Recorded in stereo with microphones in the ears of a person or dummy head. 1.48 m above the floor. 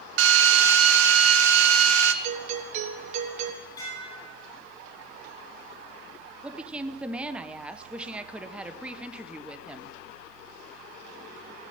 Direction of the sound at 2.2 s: 40° right (ahead or behind).